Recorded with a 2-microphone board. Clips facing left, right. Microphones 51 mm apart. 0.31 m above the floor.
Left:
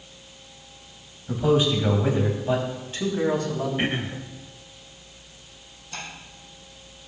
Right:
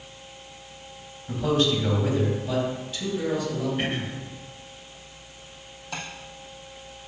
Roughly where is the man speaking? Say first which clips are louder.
Left 2 dB; centre.